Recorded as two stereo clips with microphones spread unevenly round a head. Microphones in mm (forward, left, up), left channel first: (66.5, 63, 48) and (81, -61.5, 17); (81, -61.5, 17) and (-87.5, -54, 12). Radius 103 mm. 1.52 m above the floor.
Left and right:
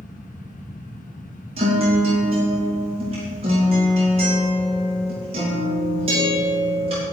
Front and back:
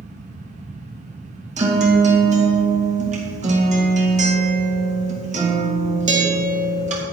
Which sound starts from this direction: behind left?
A fan, at 0.0 s.